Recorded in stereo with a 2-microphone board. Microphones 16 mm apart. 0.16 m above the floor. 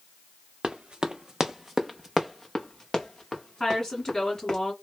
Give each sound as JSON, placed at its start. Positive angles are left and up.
{"t": 0.6, "sound": "running footsteps", "side_deg": -70, "distance_m": 0.7}
{"t": 3.6, "sound": "a woman speaking", "side_deg": 35, "distance_m": 1.7}